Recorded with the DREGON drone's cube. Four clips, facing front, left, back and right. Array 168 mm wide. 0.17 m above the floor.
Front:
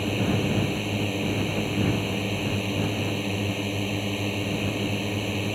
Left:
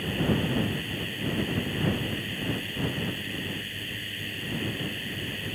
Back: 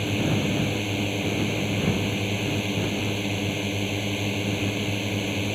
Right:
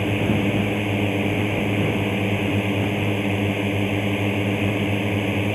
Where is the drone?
90° right.